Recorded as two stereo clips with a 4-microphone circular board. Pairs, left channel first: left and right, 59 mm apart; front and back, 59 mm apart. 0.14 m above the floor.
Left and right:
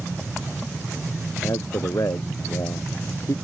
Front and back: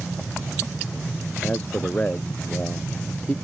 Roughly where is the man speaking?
Ahead left.